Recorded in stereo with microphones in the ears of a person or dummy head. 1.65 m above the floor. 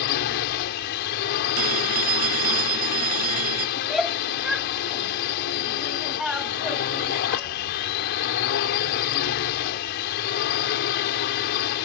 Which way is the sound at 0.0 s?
55° left (ahead or behind).